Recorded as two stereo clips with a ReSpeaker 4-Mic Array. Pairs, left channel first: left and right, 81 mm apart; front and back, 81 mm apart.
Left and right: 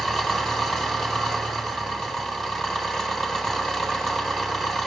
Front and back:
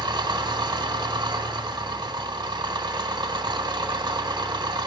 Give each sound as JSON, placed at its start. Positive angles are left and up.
{"t": 0.0, "sound": "an engine running", "azimuth_deg": 175, "distance_m": 0.9}